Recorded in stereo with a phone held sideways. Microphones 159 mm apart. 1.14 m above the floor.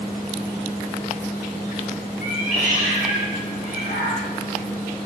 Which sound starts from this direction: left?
A cat meowing, at 2.2 s.